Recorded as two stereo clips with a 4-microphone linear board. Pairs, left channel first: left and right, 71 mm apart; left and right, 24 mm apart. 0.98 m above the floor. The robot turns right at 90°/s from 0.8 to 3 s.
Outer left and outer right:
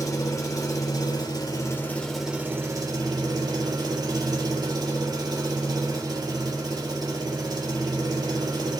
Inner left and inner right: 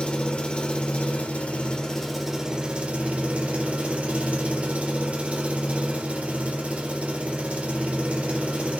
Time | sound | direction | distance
0.0 | an engine running | 55° left | 1.7 m